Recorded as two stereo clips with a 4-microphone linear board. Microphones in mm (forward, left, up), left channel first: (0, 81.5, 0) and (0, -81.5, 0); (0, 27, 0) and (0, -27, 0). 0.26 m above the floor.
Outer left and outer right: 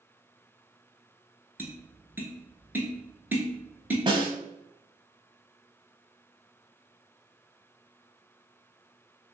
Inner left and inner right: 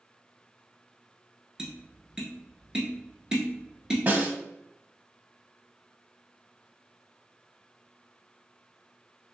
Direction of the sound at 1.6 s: 15° right (ahead or behind).